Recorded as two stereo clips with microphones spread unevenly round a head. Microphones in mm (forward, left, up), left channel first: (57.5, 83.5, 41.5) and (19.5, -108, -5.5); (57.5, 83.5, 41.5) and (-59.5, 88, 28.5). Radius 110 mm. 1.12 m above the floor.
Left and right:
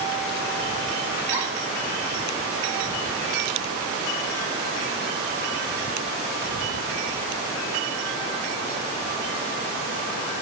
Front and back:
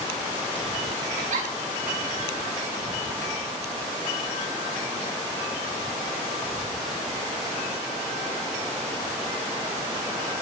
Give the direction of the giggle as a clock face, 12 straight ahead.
6 o'clock.